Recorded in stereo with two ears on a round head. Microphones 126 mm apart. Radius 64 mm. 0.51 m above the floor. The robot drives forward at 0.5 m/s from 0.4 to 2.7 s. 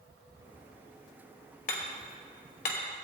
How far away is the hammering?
About 1.9 m.